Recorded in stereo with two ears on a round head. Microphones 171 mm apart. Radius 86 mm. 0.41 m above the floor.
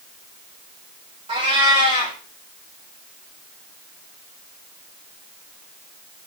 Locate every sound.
1.3 s a cat meowing: 30° right (ahead or behind), 3.5 m